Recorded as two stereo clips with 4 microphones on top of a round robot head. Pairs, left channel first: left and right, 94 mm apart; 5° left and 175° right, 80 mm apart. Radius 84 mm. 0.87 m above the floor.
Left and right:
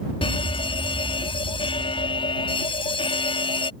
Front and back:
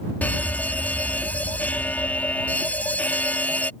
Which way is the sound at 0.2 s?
75° left.